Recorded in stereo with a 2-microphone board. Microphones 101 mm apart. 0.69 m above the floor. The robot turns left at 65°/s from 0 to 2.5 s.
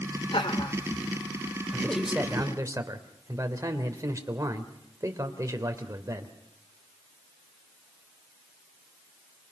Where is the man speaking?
20° left, 3 m; by 6.3 s 35° right, 3 m.